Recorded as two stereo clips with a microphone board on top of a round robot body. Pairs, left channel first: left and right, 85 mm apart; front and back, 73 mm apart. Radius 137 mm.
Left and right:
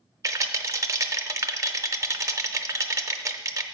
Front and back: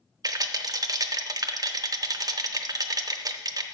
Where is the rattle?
145° right, 0.7 m.